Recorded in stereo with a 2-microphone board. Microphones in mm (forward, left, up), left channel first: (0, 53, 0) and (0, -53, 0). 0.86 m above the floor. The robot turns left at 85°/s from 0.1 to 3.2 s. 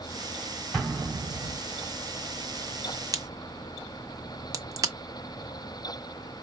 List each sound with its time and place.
0.7 s an explosion: 5° left (ahead or behind), 2 m; by 1.6 s 65° right (ahead or behind), 2 m
3.1 s a crack: 30° right (ahead or behind), 0.6 m